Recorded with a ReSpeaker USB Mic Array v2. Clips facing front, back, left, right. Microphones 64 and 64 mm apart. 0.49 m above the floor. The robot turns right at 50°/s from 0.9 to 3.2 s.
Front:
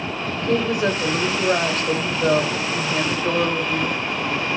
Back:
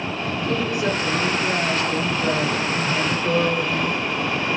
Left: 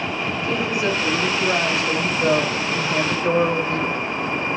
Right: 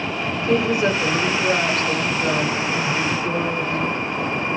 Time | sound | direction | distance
0.4 | a woman speaking | 35° right | 1.8 m